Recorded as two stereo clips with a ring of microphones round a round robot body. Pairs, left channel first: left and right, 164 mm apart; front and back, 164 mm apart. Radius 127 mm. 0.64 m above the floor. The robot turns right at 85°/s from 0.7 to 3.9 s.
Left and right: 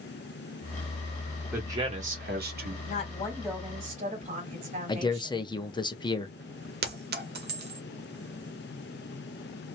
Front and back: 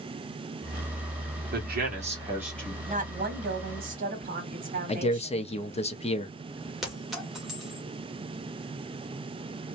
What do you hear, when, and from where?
1.5 s a man speaking: 175° right, 1.6 m; by 2.8 s 70° right, 1.6 m
2.9 s a woman speaking: 130° left, 1.5 m; by 5.5 s 140° right, 1.5 m
4.9 s a man speaking: 35° left, 1.1 m
6.8 s a clink: 90° right, 1.2 m